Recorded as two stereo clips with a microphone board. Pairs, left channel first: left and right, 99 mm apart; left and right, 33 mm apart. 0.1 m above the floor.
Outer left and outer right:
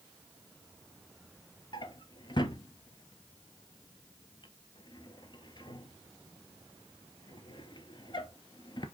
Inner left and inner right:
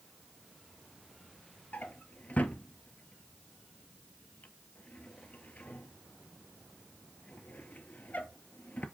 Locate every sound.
1.7 s a drawer: 50° left (ahead or behind), 0.5 m